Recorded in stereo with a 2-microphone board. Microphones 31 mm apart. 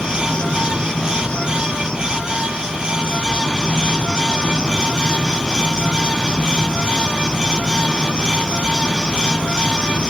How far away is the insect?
About 1.0 m.